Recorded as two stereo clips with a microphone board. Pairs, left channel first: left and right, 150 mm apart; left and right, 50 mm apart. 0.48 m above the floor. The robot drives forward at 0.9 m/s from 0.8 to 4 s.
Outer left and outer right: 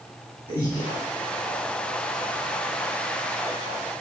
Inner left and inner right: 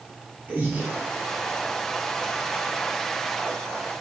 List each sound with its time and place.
0.5 s breathing: 40° right (ahead or behind), 3 m